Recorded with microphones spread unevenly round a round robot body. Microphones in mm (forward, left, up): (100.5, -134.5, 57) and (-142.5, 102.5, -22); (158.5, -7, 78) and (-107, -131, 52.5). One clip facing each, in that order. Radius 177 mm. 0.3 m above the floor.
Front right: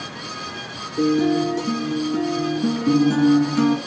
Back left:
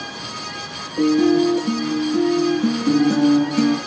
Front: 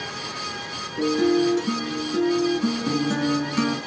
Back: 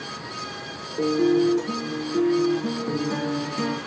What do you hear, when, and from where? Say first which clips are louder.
1.0 s a guitar: back left 3 dB, even; 40° left, 4 m